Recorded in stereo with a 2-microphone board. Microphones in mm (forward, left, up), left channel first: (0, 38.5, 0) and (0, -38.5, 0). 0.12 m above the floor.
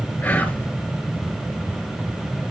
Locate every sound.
0.2 s whispering: 25° left (ahead or behind), 2 m